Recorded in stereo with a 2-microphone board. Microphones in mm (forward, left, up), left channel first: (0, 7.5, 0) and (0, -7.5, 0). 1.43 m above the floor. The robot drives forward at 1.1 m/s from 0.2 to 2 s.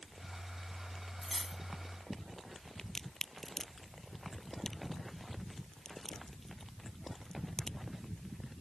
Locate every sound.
1.2 s cutlery clinking: 10° right (ahead or behind)
2.8 s a crack: 35° left (ahead or behind)